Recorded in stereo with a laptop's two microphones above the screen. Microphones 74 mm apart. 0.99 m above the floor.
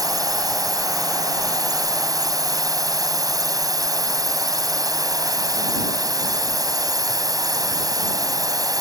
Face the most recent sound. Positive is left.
turn(degrees=-55)  # may be behind; listen again after turning